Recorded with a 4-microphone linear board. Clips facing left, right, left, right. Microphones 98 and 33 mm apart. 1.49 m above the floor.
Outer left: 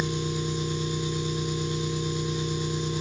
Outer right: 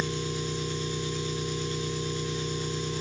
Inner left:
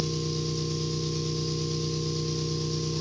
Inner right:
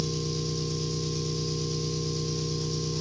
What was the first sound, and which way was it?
An engine running, 15° left (ahead or behind).